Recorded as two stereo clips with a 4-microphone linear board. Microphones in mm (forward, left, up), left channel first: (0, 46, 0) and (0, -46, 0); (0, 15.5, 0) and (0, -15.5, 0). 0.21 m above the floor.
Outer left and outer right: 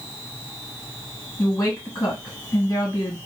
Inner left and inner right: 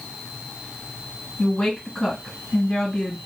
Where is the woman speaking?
35° left (ahead or behind), 1.9 m.